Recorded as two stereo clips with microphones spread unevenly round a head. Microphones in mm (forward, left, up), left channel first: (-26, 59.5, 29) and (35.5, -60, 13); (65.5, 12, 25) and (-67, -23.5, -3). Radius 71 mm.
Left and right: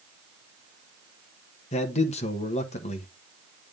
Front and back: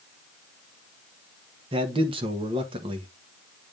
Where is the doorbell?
No doorbell in this recording.